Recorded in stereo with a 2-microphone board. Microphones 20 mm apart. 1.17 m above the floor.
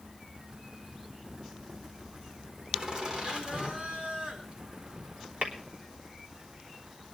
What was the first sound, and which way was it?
Laughter, 30° right (ahead or behind).